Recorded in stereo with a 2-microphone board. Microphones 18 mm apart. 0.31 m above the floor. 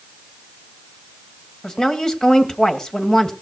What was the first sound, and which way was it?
A woman speaking, 35° left (ahead or behind).